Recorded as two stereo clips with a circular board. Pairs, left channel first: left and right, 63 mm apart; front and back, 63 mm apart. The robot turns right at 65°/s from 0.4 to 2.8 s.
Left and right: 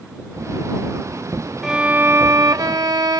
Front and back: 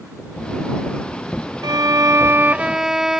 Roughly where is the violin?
Behind.